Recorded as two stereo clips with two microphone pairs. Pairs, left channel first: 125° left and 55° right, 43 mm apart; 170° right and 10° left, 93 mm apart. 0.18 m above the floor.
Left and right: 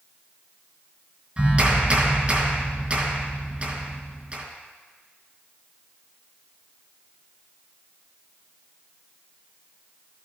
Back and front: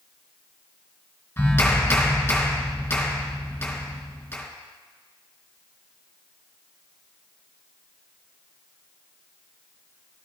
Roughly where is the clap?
Right.